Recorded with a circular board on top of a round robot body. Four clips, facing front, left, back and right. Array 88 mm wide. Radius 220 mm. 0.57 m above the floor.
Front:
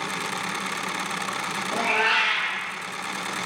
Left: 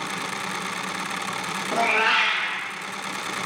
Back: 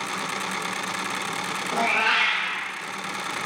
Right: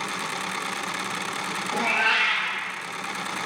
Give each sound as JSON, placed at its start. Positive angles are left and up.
{"t": 1.7, "sound": "a cat meowing", "azimuth_deg": 110, "distance_m": 0.6}